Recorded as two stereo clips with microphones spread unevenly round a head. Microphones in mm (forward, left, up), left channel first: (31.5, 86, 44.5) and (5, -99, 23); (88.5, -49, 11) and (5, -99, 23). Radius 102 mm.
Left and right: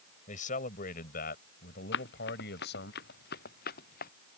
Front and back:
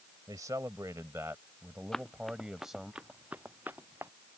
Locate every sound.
0.3 s a man speaking: 135° left; by 2.9 s 120° left
1.9 s running footsteps: 120° left; by 4.1 s 130° left